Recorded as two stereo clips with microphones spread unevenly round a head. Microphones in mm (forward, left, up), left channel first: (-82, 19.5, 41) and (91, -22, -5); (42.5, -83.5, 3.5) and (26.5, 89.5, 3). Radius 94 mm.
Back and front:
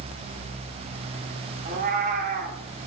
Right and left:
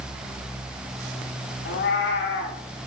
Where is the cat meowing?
65° right, 1.1 m.